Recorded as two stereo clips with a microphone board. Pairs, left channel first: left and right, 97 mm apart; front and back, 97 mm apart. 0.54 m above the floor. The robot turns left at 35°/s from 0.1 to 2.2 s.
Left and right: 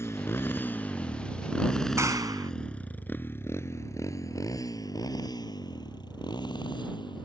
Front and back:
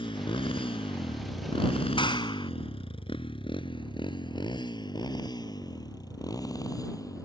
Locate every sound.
0.0 s a motorcycle: 25° left; by 7.3 s 50° left
2.0 s a clap: 30° right; by 2.5 s 35° right